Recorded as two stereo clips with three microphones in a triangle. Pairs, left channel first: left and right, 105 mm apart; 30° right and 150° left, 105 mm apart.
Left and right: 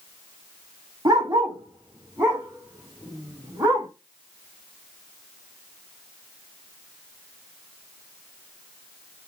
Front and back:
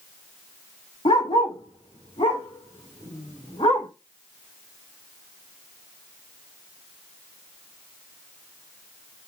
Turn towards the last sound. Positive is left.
turn(degrees=-25)